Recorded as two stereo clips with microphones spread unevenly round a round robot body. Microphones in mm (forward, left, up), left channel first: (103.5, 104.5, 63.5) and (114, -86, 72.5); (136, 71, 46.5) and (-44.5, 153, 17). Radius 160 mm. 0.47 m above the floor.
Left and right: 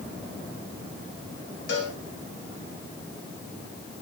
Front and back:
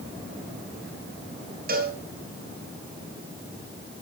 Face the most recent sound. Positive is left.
turn(degrees=115)